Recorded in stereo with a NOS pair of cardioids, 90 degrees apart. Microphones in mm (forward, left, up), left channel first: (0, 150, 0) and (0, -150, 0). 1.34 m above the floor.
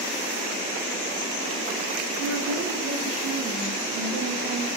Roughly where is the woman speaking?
Ahead right.